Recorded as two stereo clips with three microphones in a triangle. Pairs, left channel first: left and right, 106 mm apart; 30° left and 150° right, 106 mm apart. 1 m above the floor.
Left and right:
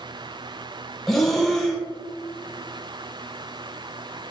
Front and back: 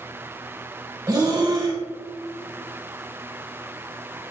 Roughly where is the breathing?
Behind.